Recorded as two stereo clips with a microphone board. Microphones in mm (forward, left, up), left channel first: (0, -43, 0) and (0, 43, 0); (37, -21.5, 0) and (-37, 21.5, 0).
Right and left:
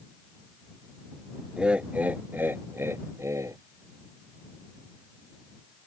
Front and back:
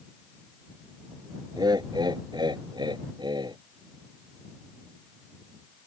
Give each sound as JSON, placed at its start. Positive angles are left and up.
{"t": 1.6, "sound": "laughter", "azimuth_deg": 165}